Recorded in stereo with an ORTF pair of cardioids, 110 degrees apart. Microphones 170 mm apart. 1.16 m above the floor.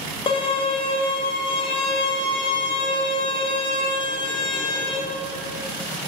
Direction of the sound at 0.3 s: 30° left.